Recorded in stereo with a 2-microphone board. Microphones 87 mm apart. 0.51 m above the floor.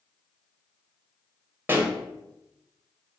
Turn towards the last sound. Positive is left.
turn(degrees=-25)  # may be behind; listen again after turning